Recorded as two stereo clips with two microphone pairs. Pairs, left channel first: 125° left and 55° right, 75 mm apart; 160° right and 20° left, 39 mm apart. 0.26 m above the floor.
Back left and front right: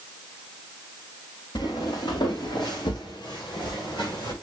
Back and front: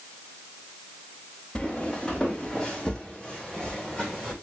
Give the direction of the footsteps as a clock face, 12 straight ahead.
8 o'clock.